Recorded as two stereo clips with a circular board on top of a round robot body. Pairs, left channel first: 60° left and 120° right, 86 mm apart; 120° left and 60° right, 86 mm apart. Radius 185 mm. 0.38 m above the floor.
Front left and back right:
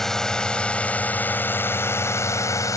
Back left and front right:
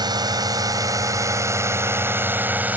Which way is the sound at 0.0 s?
25° right.